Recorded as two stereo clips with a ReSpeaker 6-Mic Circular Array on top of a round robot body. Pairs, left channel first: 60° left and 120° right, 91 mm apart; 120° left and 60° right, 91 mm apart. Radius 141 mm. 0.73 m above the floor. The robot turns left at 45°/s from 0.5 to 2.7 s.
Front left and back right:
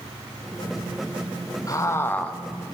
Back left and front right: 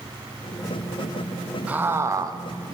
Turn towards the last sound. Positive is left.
turn(degrees=-35)